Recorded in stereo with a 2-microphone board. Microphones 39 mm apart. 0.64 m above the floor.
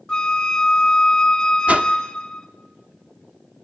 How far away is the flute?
About 0.7 m.